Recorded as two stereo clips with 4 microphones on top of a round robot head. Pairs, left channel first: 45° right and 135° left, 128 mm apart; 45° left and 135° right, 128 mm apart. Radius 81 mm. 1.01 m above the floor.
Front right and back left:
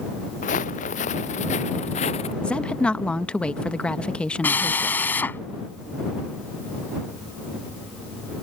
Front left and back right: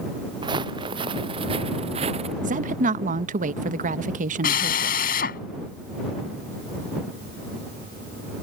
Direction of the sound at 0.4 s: 75° right.